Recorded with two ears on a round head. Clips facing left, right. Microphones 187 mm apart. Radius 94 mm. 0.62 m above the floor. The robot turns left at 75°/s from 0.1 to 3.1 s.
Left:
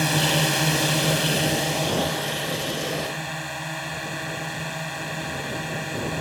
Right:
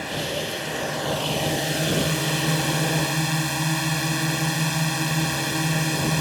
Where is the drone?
110° left; by 6.2 s 115° right.